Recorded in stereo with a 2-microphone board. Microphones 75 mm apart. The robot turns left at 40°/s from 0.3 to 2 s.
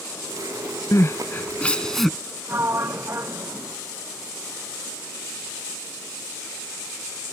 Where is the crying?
45° left (ahead or behind); by 2.2 s 5° left (ahead or behind).